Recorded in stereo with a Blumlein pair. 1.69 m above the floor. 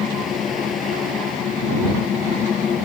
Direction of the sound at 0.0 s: 25° left.